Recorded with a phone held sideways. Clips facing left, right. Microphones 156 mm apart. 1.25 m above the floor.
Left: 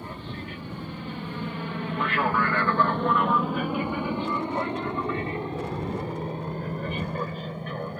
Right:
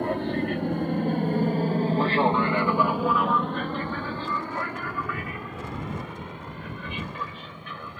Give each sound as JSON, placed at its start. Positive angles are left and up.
{"t": 0.0, "sound": "an aircraft", "side_deg": -70}